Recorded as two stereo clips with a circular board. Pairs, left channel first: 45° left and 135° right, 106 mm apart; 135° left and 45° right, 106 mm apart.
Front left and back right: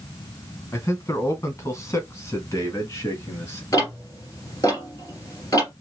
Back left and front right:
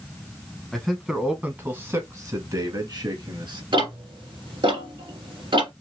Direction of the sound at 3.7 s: 10° right.